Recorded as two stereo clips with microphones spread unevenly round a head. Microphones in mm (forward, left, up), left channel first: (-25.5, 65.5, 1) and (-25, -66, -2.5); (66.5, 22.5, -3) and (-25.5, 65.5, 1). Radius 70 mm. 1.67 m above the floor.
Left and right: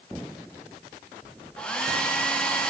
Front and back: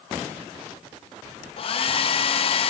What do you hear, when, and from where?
1.6 s a hair dryer: 5° left, 0.5 m